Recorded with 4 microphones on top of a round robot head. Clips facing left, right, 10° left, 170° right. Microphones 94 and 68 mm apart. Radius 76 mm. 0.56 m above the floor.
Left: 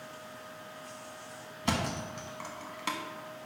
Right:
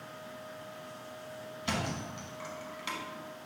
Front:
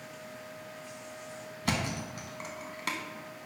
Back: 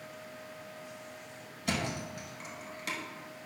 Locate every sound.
1.6 s a thud: 45° left, 1.1 m